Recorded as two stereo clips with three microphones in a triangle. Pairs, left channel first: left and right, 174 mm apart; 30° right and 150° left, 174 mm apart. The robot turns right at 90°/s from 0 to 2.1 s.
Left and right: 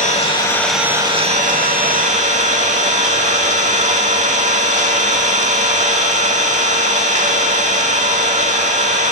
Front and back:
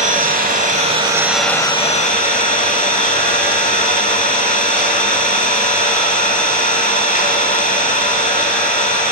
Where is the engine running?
115° left, 0.9 m; by 9.1 s 55° right, 0.9 m.